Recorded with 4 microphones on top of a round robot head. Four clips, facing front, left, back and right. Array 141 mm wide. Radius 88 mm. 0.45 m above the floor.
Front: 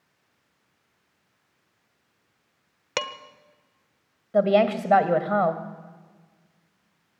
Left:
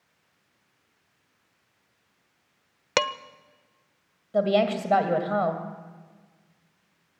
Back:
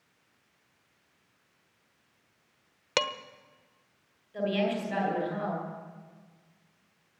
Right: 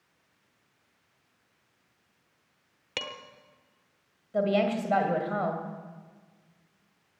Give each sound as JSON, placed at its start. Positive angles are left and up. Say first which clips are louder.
{"t": 3.0, "sound": "dishes clattering", "louder": "left 14 dB, even", "azimuth_deg": 95, "distance_m": 0.9}
{"t": 4.3, "sound": "a woman speaking", "louder": "left 3 dB, front 10 dB", "azimuth_deg": 15, "distance_m": 2.5}